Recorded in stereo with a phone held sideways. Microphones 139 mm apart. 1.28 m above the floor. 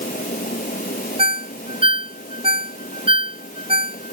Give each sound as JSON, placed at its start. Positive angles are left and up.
{"t": 0.0, "sound": "a fan", "side_deg": 80}
{"t": 1.2, "sound": "a ringtone", "side_deg": -40}